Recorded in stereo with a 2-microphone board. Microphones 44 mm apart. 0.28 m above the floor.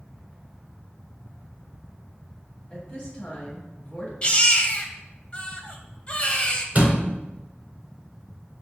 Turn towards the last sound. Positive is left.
turn(degrees=-35)  # may be behind; listen again after turning